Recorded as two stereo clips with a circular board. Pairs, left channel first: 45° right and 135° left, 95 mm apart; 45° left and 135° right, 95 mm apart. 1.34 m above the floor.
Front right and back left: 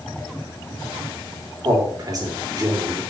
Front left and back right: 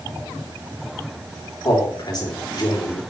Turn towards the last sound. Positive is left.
turn(degrees=90)